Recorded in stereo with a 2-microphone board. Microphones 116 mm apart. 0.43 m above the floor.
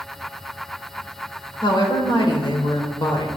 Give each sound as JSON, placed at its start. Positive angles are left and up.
{"t": 1.6, "sound": "a woman speaking", "side_deg": 40, "distance_m": 1.0}